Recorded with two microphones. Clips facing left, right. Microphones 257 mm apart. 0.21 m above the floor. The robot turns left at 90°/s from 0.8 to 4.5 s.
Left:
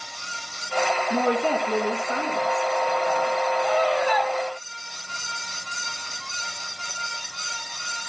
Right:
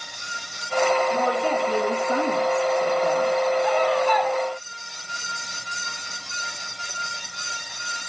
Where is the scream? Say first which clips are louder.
Right 2 dB; 55° left, 4.5 m; by 4.3 s 5° right, 4.5 m.